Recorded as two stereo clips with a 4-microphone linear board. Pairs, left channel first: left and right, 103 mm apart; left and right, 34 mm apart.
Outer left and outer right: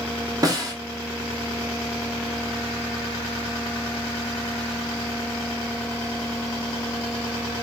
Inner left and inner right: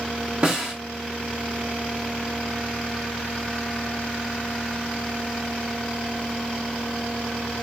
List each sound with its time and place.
0.4 s a snare drum: 35° right (ahead or behind), 1.2 m